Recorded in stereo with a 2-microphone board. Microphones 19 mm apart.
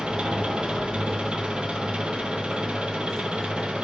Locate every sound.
0.0 s an engine running: 70° right (ahead or behind), 1.2 m